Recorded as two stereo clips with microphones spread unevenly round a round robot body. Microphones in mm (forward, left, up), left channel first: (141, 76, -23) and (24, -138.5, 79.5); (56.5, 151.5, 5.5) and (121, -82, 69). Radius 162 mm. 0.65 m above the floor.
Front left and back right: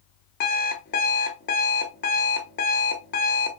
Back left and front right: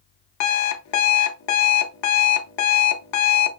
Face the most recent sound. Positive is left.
turn(degrees=120)